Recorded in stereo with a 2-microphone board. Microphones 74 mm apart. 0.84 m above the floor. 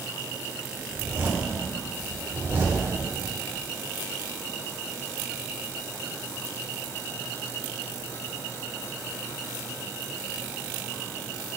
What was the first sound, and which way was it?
A zipper, 30° right (ahead or behind).